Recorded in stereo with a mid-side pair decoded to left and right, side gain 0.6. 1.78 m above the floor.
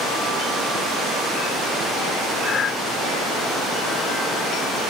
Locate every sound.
2.4 s breathing: 40° left, 1.0 m